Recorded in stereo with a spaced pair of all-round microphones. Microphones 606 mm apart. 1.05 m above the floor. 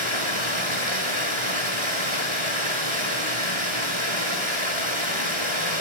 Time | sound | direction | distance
0.0 | running water | 50° left (ahead or behind) | 4.5 m